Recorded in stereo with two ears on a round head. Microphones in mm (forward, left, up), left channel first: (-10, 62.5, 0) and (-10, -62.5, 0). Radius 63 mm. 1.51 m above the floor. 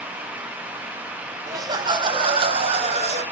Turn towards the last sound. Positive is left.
turn(degrees=-50)  # may be behind; listen again after turning